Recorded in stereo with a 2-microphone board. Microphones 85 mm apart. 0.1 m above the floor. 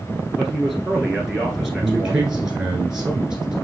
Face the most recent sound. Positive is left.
turn(degrees=-10)  # may be behind; listen again after turning